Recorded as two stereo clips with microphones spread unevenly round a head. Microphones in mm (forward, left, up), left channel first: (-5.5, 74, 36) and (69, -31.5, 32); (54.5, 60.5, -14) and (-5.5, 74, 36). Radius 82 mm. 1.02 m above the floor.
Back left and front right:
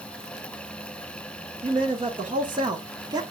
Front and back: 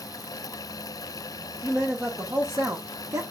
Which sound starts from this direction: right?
A man speaking, at 1.6 s.